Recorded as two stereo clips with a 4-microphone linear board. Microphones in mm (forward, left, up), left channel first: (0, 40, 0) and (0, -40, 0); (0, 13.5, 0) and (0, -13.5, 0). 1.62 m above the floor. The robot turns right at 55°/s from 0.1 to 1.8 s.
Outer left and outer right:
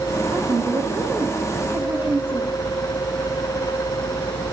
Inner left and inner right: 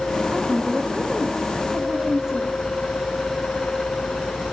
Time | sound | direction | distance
0.3 | a woman speaking | 105° right | 2.0 m